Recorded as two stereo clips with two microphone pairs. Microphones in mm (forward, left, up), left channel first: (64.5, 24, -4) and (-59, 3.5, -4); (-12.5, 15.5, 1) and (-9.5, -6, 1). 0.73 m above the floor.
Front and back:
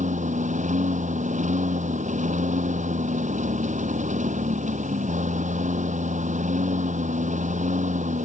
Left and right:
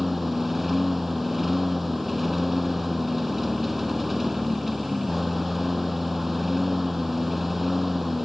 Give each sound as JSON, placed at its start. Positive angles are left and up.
{"t": 0.0, "sound": "a lawn mower", "azimuth_deg": -165}